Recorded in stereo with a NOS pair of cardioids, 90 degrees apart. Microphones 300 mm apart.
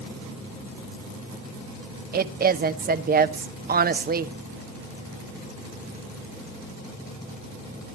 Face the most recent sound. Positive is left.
turn(degrees=-30)